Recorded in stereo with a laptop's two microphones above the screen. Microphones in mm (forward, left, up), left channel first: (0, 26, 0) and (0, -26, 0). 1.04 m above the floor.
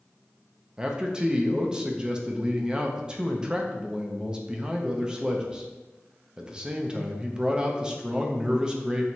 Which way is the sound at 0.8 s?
15° right (ahead or behind).